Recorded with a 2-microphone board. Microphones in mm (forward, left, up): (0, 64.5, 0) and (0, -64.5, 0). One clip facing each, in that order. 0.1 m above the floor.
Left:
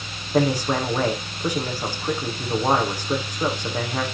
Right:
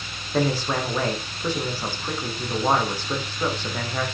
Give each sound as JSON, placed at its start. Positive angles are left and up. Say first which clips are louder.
{"t": 0.3, "sound": "a man speaking", "louder": "left 3 dB", "side_deg": 15, "distance_m": 5.5}